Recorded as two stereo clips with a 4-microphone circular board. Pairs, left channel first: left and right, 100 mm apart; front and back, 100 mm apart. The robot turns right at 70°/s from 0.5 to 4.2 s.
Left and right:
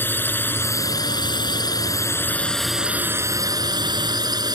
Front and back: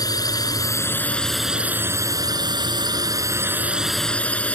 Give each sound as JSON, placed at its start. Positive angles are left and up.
{"t": 0.0, "sound": "a drone", "azimuth_deg": 30}